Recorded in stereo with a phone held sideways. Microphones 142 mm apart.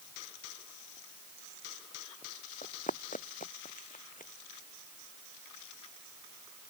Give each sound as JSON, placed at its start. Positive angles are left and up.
{"t": 2.6, "sound": "running footsteps", "side_deg": 65}